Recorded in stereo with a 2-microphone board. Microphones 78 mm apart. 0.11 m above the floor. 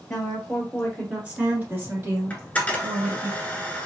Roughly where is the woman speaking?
Centre.